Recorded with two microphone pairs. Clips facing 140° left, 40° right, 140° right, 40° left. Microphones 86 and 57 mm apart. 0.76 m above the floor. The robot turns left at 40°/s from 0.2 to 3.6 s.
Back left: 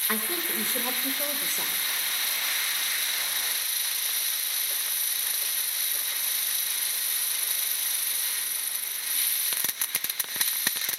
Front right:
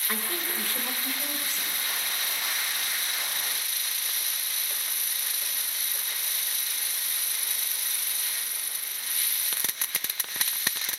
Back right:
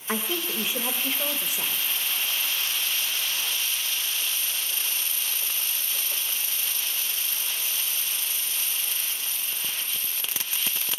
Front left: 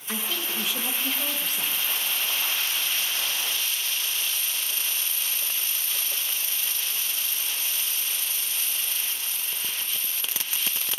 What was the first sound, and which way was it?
A woman speaking, 160° right.